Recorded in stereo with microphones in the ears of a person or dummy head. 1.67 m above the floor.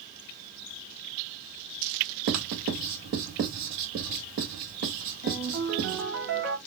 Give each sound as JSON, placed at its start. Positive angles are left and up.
{"t": 2.3, "sound": "writing", "side_deg": -50, "distance_m": 1.6}
{"t": 5.2, "sound": "a ringtone", "side_deg": -75, "distance_m": 1.9}